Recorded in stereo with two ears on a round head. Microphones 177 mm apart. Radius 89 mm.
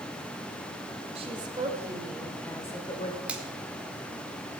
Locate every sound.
1.1 s a woman speaking: 30° right (ahead or behind), 3 m; by 3.2 s 30° left (ahead or behind), 2.5 m
3.3 s a finger snap: 5° right (ahead or behind), 1.8 m